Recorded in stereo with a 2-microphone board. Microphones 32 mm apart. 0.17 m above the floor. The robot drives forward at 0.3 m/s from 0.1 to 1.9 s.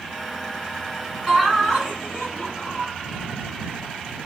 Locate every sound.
1.3 s laughter: 5° right (ahead or behind), 1.9 m